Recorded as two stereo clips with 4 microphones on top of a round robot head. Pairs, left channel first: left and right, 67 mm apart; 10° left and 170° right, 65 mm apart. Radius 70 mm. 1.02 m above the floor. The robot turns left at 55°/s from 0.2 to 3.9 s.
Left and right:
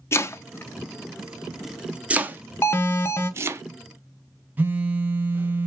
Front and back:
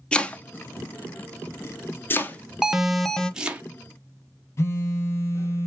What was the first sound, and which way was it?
Chopping, 75° left.